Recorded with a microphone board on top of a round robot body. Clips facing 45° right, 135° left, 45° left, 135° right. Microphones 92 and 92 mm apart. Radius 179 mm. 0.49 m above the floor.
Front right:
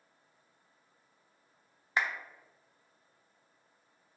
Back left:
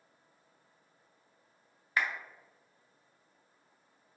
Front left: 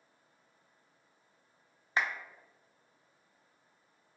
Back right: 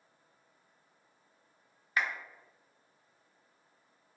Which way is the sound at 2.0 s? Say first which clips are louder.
Even, even; 5° left.